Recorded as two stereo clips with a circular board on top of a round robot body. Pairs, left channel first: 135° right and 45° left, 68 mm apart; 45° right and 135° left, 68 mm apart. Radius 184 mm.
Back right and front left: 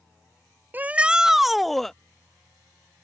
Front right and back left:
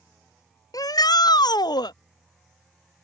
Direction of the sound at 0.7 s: 20° right.